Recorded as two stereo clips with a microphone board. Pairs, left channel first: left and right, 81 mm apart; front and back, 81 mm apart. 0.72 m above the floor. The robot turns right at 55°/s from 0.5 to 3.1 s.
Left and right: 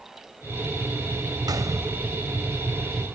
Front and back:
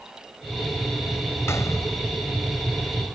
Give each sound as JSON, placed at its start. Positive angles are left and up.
{"t": 1.5, "sound": "a gunshot", "azimuth_deg": -55}